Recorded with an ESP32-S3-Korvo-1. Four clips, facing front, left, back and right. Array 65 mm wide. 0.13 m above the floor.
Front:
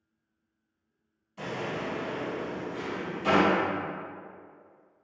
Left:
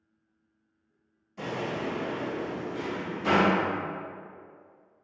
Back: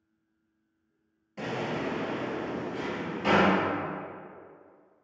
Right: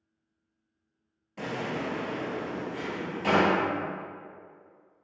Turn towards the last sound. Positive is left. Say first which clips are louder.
# left 1 dB, back 1 dB
turn(degrees=-135)